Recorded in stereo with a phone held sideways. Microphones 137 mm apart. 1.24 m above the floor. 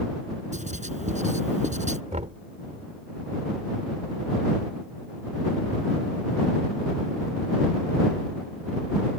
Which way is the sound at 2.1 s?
60° right (ahead or behind).